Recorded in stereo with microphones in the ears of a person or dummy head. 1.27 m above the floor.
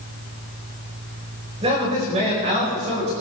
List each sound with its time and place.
1.6 s a man speaking: 30° right (ahead or behind), 4.5 m; by 3.1 s 35° right (ahead or behind), 5.5 m